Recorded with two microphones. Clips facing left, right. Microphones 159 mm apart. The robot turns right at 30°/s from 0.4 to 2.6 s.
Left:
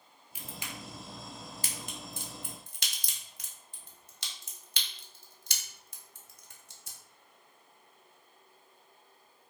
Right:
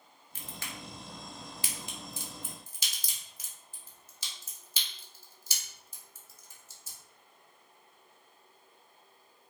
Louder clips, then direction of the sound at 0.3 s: Left 1 dB; 10° left (ahead or behind).